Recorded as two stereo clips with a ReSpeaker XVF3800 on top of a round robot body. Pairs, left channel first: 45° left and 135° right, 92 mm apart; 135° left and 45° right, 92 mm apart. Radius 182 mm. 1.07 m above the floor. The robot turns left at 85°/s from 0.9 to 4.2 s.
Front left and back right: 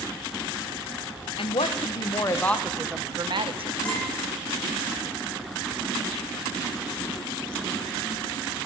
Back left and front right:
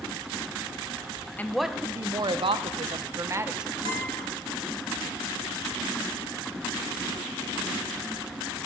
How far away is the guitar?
About 3.5 m.